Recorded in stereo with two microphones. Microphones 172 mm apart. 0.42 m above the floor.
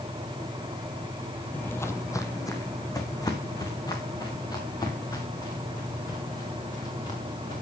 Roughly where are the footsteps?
Centre.